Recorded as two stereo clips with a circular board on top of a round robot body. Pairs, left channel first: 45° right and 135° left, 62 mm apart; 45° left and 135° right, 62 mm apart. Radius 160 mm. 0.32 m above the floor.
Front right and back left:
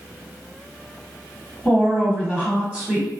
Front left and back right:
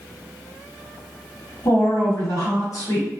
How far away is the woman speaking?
About 1.3 m.